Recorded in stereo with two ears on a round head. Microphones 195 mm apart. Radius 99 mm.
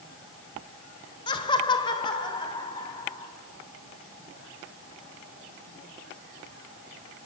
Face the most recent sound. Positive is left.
turn(degrees=20)  # may be behind; listen again after turning